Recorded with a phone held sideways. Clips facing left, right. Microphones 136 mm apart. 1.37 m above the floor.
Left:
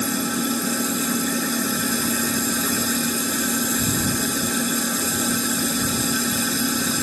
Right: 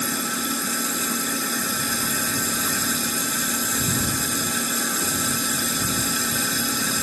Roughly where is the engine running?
Left.